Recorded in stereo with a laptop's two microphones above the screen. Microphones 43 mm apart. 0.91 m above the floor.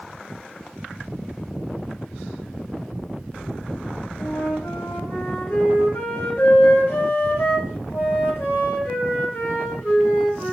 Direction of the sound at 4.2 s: 70° left (ahead or behind).